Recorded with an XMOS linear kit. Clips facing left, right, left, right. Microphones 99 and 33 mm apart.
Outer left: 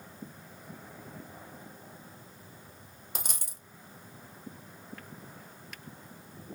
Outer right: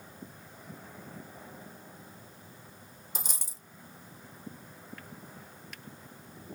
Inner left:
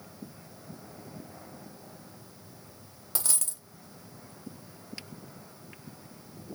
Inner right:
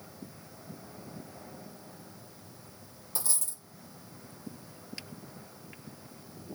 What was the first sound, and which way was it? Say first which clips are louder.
A dropped coin: outer left 1 dB, inner left 3 dB; 55° left (ahead or behind).